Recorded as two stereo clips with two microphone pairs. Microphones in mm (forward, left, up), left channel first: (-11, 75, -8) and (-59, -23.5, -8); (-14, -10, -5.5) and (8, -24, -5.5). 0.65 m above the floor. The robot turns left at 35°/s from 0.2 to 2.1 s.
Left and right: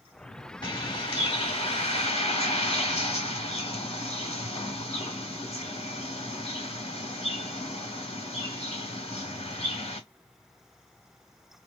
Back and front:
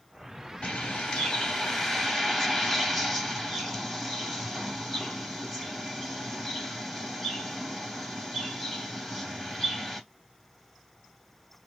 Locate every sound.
0.6 s a bird: 110° left, 1.7 m; by 10.0 s 60° left, 1.7 m